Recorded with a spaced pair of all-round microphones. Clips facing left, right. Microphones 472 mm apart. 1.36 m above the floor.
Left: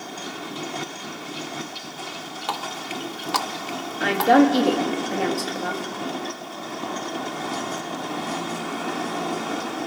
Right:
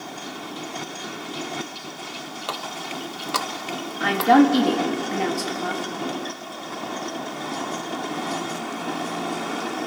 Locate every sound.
2.5 s a running tap: 5° left (ahead or behind), 0.8 m
4.0 s a woman speaking: 20° right (ahead or behind), 3 m